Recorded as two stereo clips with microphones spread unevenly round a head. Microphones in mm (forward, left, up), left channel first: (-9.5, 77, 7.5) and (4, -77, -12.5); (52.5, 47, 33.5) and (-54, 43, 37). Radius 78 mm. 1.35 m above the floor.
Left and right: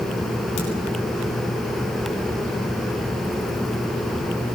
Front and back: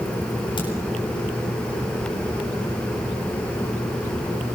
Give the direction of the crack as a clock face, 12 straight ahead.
10 o'clock.